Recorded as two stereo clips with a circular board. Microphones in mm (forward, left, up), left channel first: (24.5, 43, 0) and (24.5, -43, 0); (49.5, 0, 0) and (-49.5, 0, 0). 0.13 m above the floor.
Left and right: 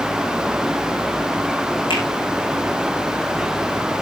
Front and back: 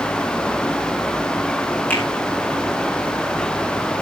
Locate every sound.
1.9 s a finger snap: 75° left, 6 m